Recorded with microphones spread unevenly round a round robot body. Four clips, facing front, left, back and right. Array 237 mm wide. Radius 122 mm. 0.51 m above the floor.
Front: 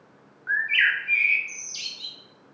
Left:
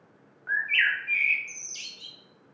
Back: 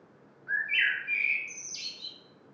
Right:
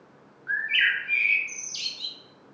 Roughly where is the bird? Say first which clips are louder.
Even, front 6 dB; left.